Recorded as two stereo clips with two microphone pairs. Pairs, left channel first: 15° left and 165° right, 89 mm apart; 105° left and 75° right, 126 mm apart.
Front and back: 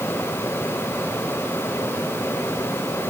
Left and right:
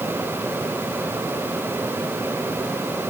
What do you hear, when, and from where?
Only background noise.